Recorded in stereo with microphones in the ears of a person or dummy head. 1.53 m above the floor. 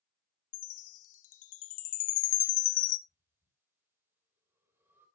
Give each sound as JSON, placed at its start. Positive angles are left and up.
{"t": 0.5, "sound": "a chime", "side_deg": 45, "distance_m": 0.6}
{"t": 3.1, "sound": "breathing", "side_deg": -15, "distance_m": 3.5}